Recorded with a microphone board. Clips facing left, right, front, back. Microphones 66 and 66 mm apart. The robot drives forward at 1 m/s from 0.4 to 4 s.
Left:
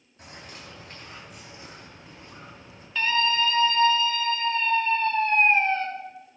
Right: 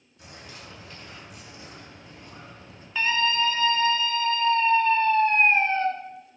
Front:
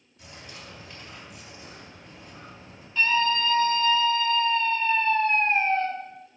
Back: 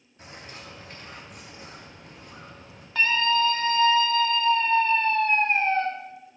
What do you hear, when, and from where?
0.2 s a bird: 130° left, 3.5 m; by 2.9 s 150° left, 5.5 m
3.0 s a scream: 170° right, 1.9 m